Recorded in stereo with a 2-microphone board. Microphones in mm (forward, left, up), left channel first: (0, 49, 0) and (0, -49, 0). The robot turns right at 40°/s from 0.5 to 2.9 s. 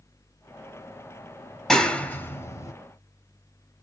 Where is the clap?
5° left (ahead or behind), 1.1 m; by 2.7 s 35° left (ahead or behind), 1.1 m.